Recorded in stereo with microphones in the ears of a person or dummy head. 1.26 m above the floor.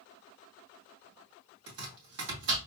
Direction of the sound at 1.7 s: 70° right (ahead or behind).